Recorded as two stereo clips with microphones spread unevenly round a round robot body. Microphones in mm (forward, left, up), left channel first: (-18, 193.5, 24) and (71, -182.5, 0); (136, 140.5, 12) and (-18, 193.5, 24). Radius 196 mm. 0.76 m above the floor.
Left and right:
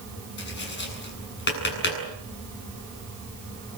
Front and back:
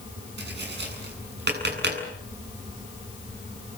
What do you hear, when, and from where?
0.4 s tapping: 165° left, 8 m